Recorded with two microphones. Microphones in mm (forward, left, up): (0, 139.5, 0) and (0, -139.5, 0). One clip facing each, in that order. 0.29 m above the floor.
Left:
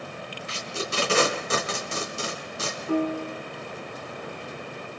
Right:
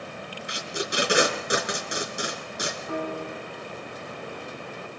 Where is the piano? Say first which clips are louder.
Left 8 dB; 35° left (ahead or behind), 3 m.